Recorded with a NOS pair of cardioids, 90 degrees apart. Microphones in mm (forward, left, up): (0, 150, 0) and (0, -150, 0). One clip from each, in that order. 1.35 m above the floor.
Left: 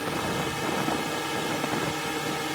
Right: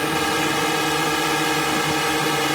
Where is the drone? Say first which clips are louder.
Right 8 dB; 65° right.